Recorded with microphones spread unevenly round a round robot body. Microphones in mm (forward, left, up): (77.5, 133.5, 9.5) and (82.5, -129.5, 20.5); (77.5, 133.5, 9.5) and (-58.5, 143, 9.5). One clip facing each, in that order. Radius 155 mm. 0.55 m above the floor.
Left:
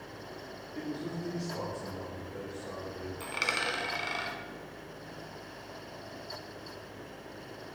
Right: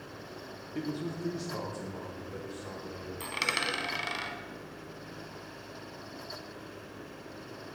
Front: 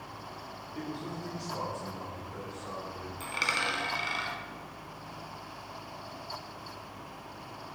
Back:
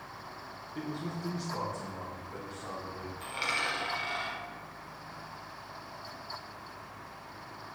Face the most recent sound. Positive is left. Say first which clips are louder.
# even, front 2 dB
turn(degrees=-30)